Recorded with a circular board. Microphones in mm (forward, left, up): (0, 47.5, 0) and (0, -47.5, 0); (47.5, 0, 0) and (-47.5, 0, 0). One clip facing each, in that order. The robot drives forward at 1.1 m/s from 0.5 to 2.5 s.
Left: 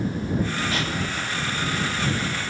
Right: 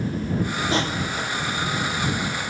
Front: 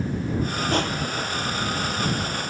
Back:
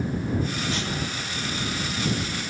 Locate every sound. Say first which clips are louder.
0.7 s crushing: right 3 dB, front 5 dB; 30° right, 3 m; by 1.3 s 40° right, 2.5 m